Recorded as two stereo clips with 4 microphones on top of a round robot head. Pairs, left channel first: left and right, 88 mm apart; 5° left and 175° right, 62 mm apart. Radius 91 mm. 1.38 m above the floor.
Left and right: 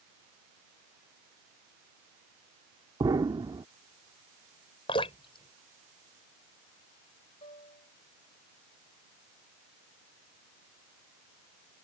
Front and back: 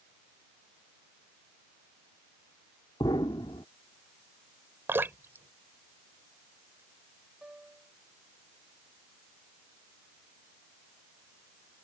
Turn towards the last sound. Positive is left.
turn(degrees=110)